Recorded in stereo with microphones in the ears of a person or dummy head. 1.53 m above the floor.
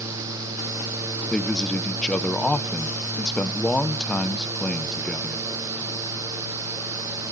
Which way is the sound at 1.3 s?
5° left (ahead or behind).